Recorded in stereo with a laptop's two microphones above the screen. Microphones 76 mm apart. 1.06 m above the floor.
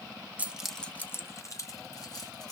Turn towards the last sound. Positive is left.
turn(degrees=60)  # may be behind; listen again after turning